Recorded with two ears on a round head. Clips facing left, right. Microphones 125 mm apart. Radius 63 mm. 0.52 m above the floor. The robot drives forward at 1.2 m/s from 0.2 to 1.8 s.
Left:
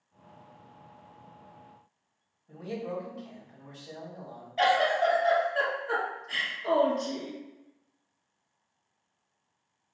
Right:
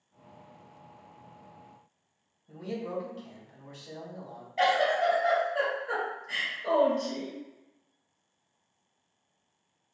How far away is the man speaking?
About 1.4 m.